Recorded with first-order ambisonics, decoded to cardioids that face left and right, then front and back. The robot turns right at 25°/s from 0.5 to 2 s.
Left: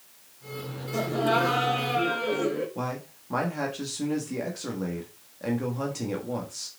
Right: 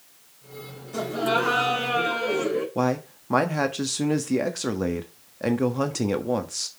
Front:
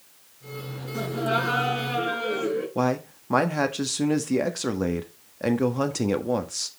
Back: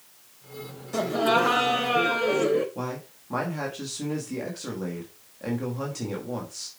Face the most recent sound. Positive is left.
turn(degrees=-40)